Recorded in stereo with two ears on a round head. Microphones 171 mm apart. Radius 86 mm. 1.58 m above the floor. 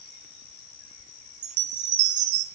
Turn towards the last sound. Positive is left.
turn(degrees=-40)  # may be behind; listen again after turning